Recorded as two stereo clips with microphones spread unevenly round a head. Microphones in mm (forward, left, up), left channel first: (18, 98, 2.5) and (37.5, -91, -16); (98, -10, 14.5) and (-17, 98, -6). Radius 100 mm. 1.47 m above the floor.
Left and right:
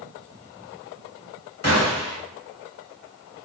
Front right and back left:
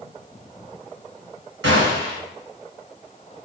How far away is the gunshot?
About 1.3 m.